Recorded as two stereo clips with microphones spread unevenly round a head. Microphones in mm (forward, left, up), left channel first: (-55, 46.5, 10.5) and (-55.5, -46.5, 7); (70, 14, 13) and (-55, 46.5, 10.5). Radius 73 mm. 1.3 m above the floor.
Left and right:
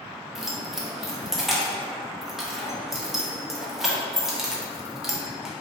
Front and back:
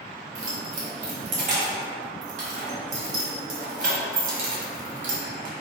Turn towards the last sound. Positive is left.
turn(degrees=-175)